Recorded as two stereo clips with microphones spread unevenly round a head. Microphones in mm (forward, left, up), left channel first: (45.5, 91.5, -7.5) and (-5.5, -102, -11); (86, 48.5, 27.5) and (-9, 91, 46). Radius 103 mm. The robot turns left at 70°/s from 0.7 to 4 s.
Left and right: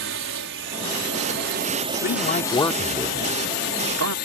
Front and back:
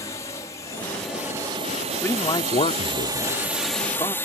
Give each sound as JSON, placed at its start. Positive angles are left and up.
{"t": 0.0, "sound": "a drone", "azimuth_deg": -85}
{"t": 2.0, "sound": "a man speaking", "azimuth_deg": 45}